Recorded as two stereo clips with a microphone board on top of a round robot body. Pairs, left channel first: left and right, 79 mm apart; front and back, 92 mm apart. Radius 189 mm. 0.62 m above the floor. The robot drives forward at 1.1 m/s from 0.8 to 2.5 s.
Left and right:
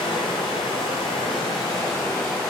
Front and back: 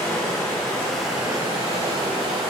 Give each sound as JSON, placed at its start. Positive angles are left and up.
{"t": 0.0, "sound": "running water", "azimuth_deg": 65, "distance_m": 0.8}